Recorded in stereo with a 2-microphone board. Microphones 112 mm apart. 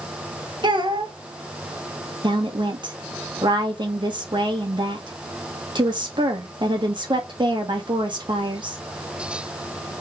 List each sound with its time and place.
0.6 s a child speaking: 40° right (ahead or behind), 1.0 m
2.2 s a woman speaking: 40° right (ahead or behind), 1.3 m